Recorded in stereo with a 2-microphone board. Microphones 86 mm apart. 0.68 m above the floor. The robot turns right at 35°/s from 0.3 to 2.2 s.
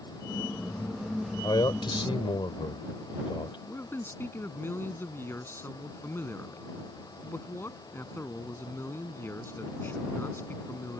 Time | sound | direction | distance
1.4 | a man speaking | 55° left (ahead or behind) | ?
3.7 | a man speaking | 25° left (ahead or behind) | ?